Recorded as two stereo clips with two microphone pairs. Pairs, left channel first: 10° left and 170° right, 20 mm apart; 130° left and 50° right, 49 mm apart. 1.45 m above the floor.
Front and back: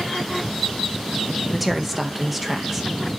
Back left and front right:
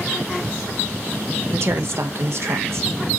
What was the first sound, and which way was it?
A woman speaking, 80° right.